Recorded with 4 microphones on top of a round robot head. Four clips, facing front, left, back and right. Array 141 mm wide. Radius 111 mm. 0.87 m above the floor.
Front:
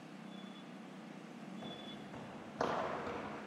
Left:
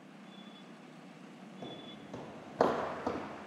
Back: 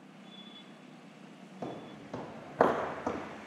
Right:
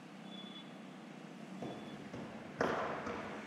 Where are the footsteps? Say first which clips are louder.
Even, back 6 dB; straight behind, 1.7 m; by 3.5 s 135° left, 1.9 m.